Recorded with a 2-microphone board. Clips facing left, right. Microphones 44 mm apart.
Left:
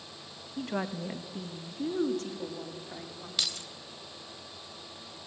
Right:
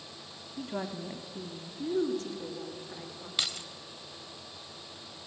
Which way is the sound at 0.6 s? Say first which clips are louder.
Left 3 dB; 70° left (ahead or behind).